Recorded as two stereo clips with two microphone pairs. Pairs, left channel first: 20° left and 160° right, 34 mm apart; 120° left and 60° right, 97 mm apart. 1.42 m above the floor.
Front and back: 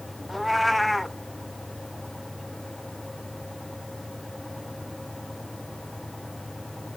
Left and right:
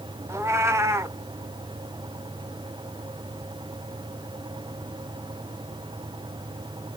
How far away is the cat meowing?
About 0.7 m.